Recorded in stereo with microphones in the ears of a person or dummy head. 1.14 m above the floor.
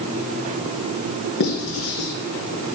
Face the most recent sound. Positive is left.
turn(degrees=65)  # may be behind; listen again after turning